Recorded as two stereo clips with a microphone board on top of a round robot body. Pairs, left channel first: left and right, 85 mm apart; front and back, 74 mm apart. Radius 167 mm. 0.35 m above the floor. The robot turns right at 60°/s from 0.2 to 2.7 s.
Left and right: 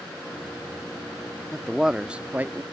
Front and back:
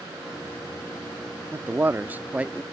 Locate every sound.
1.5 s a man speaking: 170° left; by 2.6 s 120° right